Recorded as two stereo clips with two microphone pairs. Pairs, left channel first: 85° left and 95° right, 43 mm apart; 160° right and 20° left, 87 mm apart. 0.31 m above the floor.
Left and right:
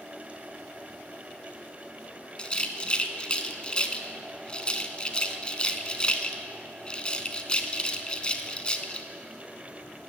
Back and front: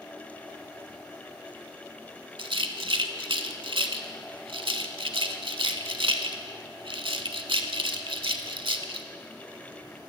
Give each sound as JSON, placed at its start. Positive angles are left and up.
{"t": 2.4, "sound": "a rattle", "azimuth_deg": 15, "distance_m": 0.5}